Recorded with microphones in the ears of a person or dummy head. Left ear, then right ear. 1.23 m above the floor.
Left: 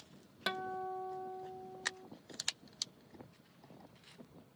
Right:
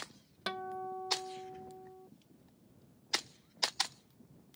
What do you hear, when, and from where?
0.5 s a guitar: 10° left (ahead or behind)